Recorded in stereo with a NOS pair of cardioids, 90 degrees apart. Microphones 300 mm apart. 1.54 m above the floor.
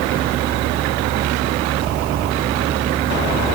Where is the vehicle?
65° right; by 3.6 s 35° right.